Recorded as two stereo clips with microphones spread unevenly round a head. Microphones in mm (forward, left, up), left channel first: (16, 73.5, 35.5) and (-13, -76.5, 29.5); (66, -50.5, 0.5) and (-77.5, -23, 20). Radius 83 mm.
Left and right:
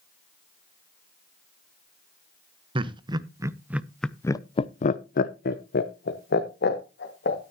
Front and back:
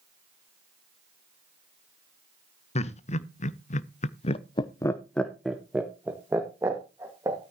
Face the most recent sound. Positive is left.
turn(degrees=95)